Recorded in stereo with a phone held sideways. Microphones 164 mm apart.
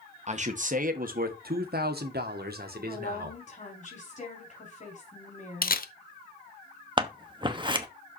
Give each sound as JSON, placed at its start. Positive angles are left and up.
{"t": 0.3, "sound": "a man speaking", "side_deg": -45, "distance_m": 1.5}
{"t": 2.9, "sound": "a woman speaking", "side_deg": 50, "distance_m": 4.0}
{"t": 5.6, "sound": "a camera shutter", "side_deg": 65, "distance_m": 0.8}
{"t": 7.0, "sound": "scissors", "side_deg": -30, "distance_m": 1.0}